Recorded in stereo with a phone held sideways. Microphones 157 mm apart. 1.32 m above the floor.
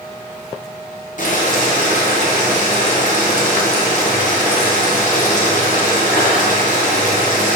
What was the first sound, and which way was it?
Boiling, 55° left (ahead or behind).